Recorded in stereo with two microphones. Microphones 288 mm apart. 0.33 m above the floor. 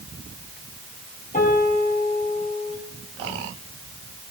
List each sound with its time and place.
1.3 s a piano: 25° left (ahead or behind), 8.5 m